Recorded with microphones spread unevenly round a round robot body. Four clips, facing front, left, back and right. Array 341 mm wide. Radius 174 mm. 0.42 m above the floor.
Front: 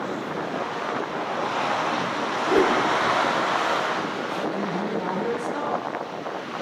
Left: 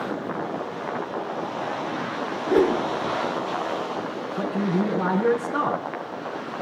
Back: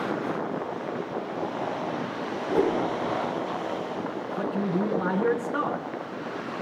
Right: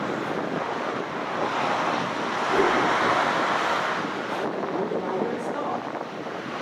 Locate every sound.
2.5 s a whoosh: 50° left, 5.5 m
4.4 s a man speaking: 95° left, 4 m